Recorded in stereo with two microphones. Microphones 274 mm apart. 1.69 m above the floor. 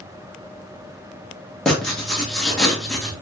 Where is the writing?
Centre (ahead or behind), 1.2 m.